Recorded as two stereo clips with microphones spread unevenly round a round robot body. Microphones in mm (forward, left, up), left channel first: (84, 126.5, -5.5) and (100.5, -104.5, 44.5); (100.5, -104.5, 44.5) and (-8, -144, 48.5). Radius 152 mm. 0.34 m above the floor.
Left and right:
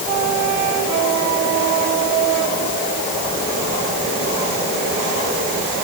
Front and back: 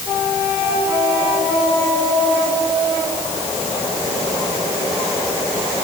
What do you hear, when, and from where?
Only background noise.